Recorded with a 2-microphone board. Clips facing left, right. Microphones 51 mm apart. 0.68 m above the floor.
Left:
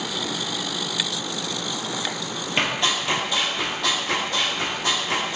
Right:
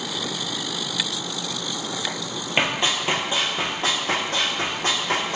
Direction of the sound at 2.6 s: 20° right (ahead or behind).